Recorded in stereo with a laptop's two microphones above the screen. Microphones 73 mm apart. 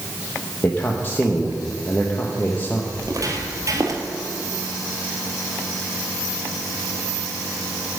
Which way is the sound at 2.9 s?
50° right (ahead or behind).